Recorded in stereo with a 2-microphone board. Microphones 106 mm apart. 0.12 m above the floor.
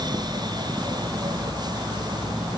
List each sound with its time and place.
Only background noise.